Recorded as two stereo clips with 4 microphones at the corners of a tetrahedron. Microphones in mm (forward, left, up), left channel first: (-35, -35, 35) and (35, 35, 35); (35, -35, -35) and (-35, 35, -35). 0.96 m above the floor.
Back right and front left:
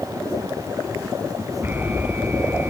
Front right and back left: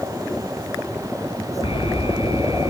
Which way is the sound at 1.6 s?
25° right.